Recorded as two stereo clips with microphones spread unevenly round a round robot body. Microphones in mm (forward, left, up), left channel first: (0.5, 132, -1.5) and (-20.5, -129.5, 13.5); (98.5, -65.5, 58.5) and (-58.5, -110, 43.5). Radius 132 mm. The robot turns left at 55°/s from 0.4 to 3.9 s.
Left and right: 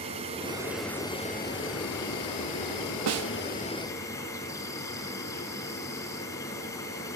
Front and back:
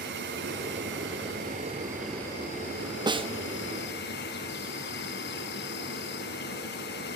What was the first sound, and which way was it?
An insect, 160° right.